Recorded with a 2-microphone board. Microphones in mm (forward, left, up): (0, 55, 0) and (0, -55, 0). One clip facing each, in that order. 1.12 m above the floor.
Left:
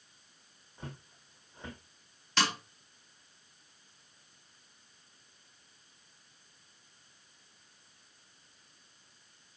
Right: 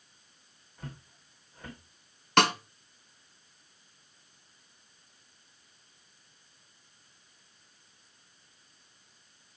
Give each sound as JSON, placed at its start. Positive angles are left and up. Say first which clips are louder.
{"t": 0.8, "sound": "footsteps", "louder": "right 1 dB", "side_deg": 25, "distance_m": 3.5}
{"t": 2.4, "sound": "a snare drum", "louder": "right 8 dB", "side_deg": -60, "distance_m": 1.0}